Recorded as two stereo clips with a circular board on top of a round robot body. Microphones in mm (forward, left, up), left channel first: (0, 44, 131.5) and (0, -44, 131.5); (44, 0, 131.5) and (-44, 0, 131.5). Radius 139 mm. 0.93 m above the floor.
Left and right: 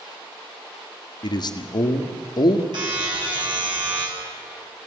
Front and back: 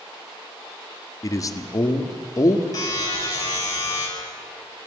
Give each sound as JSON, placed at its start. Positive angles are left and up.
{"t": 1.2, "sound": "a man speaking", "azimuth_deg": 55, "distance_m": 1.7}
{"t": 2.7, "sound": "a buzzer", "azimuth_deg": -50, "distance_m": 9.0}